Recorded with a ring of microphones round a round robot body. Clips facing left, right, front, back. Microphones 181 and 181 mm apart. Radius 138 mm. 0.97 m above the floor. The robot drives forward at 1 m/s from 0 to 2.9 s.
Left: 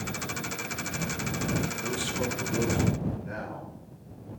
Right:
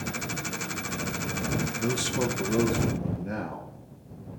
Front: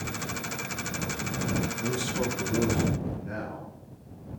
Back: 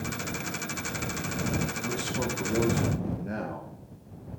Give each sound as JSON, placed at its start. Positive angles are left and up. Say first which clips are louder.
{"t": 1.8, "sound": "a man speaking", "louder": "right 4 dB, front 2 dB", "azimuth_deg": -60, "distance_m": 1.1}